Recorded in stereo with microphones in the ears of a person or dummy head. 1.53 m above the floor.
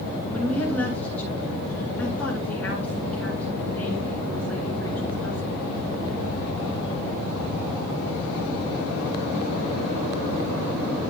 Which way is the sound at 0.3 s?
5° left (ahead or behind).